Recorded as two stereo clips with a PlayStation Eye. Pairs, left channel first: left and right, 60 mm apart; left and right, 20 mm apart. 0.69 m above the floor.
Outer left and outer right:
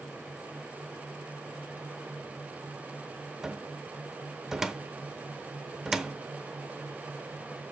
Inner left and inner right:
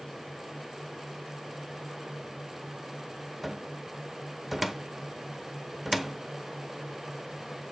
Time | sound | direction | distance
3.4 | a cupboard door | 10° right (ahead or behind) | 0.8 m